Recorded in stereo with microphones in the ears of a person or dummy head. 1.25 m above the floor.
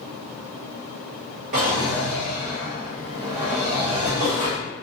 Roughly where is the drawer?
Right.